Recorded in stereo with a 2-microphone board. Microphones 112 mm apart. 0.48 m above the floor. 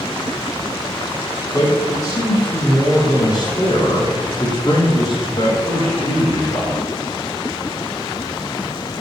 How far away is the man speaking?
About 5.5 m.